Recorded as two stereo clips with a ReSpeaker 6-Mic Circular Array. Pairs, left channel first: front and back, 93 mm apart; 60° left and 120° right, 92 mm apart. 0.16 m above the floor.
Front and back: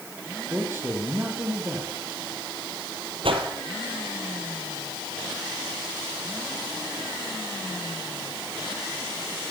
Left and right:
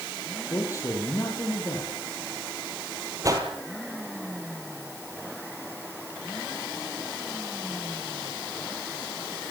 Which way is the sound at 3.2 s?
170° right.